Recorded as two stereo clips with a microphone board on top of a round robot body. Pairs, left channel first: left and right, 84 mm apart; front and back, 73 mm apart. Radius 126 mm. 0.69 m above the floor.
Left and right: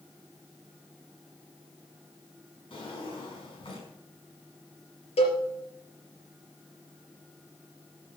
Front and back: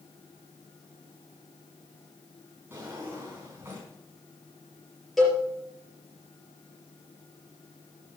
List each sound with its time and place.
2.7 s a drawer: 115° left, 5 m
5.2 s a cowbell: 85° left, 4 m